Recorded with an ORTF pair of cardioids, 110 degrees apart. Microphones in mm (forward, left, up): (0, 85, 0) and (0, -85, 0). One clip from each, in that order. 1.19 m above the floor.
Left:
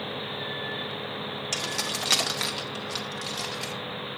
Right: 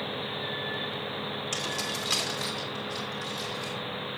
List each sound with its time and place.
1.5 s keys jangling: 25° left, 1.5 m; by 3.7 s 70° left, 2.5 m